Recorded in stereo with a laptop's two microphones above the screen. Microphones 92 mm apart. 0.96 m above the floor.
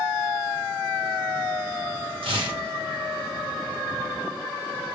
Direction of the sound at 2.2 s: 80° right.